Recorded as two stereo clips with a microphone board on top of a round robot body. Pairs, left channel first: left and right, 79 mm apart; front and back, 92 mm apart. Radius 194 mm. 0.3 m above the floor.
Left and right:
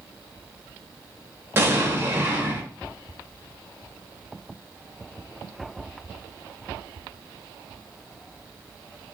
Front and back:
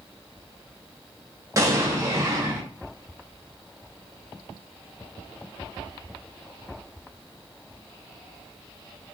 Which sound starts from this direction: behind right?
An explosion, at 1.6 s.